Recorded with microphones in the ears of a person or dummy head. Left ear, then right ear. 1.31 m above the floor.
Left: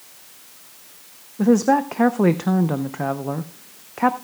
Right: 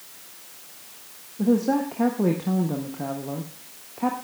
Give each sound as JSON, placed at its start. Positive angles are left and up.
{"t": 1.4, "sound": "a woman speaking", "side_deg": 50, "distance_m": 0.6}